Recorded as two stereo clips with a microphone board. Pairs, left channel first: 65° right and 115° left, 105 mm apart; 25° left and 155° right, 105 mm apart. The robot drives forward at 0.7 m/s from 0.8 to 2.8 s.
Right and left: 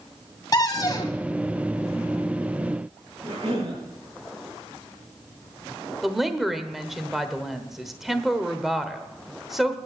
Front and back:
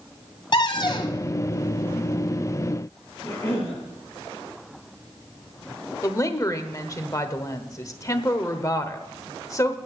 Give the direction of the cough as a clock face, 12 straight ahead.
9 o'clock.